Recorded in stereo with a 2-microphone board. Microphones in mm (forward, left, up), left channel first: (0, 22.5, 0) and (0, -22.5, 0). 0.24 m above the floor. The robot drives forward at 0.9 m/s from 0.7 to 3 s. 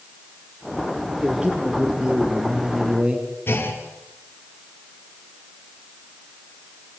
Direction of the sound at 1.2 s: 15° right (ahead or behind).